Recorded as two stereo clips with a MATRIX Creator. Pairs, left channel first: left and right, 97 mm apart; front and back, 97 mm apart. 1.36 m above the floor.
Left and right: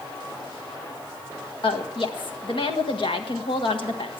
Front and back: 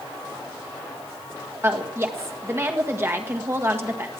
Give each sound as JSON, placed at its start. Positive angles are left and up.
{"t": 1.6, "sound": "a woman speaking", "azimuth_deg": 115, "distance_m": 1.5}